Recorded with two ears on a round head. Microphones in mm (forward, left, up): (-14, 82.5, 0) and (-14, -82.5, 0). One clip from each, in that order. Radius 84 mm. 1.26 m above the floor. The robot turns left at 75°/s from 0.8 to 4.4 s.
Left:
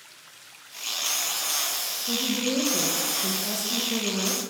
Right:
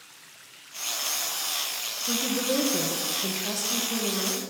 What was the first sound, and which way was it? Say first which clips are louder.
A woman speaking: even; 50° right.